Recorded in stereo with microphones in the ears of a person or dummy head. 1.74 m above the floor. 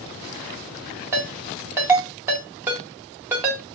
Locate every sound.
1.1 s a ringtone: 15° right (ahead or behind), 1.2 m